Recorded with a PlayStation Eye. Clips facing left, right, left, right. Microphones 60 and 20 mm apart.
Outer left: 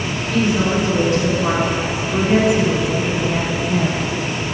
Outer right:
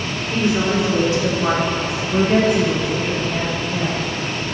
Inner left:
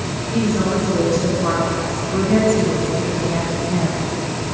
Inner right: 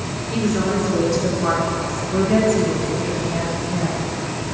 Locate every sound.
0.3 s a woman speaking: 25° right (ahead or behind), 2.5 m; by 4.1 s 50° left (ahead or behind), 1.5 m